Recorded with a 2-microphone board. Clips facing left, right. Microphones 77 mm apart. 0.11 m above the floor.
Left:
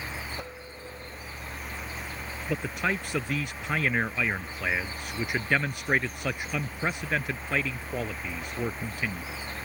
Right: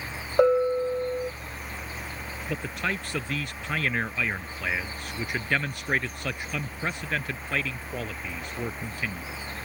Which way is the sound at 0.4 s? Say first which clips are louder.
Right 21 dB; 75° right (ahead or behind).